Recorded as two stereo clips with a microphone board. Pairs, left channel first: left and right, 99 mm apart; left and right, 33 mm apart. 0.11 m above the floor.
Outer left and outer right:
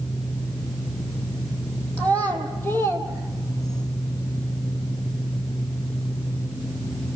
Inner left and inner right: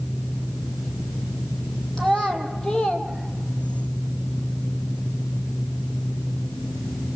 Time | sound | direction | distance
2.0 | a child speaking | 15° left (ahead or behind) | 3 m